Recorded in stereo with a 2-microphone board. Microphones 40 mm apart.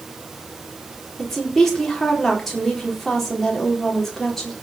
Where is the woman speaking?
5° left (ahead or behind), 4.5 m.